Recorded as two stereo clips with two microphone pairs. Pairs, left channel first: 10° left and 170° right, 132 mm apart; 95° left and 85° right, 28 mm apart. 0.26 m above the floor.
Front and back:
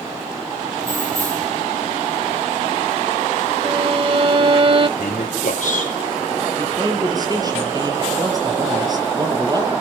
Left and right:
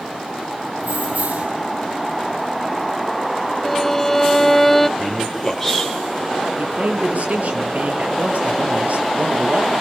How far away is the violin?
About 0.6 m.